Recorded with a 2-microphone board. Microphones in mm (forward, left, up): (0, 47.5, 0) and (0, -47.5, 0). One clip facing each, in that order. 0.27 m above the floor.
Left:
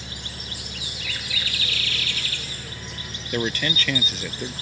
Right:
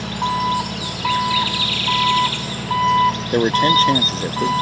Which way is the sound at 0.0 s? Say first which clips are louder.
Right 20 dB; 80° right.